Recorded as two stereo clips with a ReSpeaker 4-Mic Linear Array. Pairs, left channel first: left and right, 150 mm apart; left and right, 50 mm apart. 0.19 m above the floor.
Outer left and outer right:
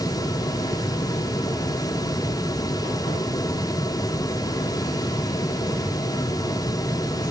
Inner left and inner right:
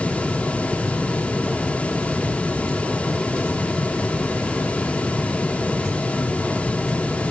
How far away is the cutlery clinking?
I don't hear cutlery clinking.